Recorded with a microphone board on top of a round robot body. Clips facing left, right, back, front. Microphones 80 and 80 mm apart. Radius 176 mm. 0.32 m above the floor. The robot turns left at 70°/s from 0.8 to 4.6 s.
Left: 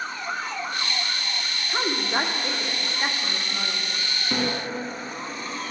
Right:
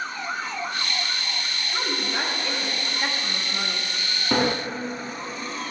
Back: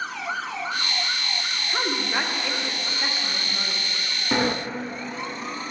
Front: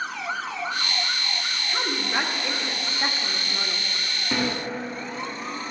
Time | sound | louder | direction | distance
1.7 | a woman speaking | left 3 dB, back 1 dB | 125° left | 1.0 m
4.3 | a sliding door | right 5 dB, back 3 dB | 115° right | 0.5 m